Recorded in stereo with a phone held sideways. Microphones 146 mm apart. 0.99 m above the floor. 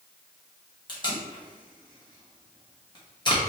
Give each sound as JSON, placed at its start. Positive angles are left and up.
{"t": 0.9, "sound": "tape being pulled", "side_deg": 30, "distance_m": 1.1}